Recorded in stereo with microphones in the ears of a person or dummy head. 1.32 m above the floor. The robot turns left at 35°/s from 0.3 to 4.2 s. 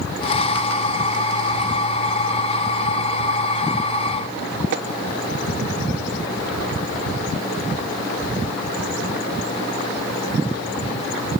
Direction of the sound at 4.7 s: 65° right (ahead or behind).